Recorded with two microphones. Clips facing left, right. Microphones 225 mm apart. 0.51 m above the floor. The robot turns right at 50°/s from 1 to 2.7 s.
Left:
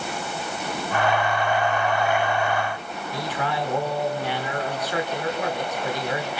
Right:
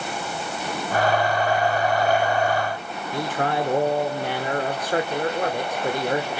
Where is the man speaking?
50° right (ahead or behind), 1.5 m.